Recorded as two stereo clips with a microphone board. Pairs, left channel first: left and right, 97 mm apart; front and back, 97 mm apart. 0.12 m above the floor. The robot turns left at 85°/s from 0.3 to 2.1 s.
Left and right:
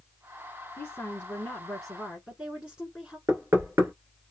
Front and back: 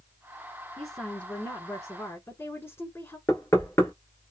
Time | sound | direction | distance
0.8 | a woman speaking | 95° left | 1.1 m
3.3 | knocking | 45° right | 1.7 m